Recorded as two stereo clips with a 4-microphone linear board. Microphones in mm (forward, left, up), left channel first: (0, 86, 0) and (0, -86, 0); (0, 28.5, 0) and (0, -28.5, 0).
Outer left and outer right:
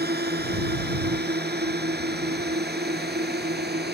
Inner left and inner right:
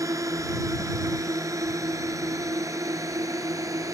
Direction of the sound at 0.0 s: 75° right (ahead or behind).